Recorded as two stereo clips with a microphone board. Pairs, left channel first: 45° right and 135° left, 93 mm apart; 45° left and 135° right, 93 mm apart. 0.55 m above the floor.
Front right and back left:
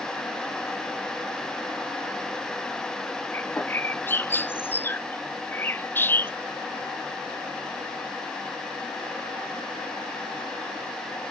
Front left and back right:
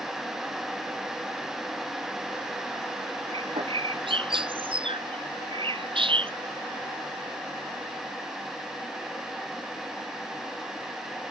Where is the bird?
115° right.